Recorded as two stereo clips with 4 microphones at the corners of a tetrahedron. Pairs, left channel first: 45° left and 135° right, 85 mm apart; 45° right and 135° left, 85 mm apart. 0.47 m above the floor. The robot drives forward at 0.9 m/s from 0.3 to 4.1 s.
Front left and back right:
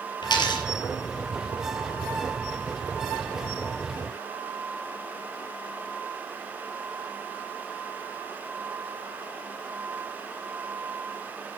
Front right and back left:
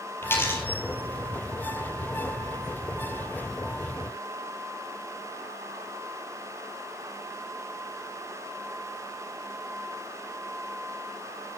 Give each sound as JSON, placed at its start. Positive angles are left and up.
{"t": 0.2, "sound": "a dropped coin", "azimuth_deg": 15, "distance_m": 5.0}